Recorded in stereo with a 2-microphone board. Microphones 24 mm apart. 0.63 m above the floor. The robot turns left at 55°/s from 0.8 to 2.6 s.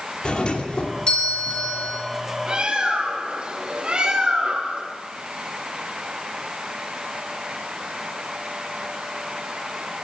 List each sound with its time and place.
0.2 s a doorbell: 105° left, 2.5 m; by 2.0 s 40° left, 2.5 m
2.5 s a bird: 45° right (ahead or behind), 7 m; by 4.9 s 55° right (ahead or behind), 7 m